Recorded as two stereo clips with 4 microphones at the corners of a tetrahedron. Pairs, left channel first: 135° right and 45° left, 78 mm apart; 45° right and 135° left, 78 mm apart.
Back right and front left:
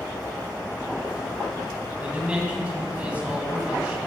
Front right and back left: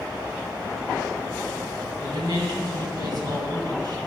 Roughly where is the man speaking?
Behind left.